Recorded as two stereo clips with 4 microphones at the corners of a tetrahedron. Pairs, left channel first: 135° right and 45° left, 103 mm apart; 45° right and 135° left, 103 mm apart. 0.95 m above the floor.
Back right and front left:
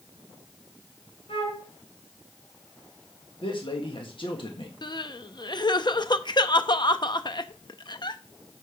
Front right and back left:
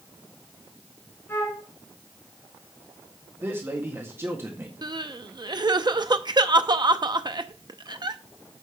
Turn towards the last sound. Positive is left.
turn(degrees=180)